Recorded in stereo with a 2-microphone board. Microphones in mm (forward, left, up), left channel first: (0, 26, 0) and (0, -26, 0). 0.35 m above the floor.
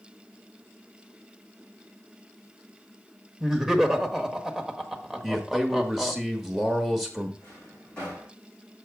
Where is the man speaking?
5° right (ahead or behind), 1.1 m.